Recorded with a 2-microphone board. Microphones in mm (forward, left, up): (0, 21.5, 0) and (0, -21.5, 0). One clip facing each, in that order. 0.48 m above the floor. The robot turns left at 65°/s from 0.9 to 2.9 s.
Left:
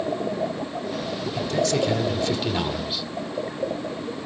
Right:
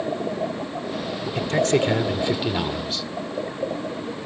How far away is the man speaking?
About 1.8 m.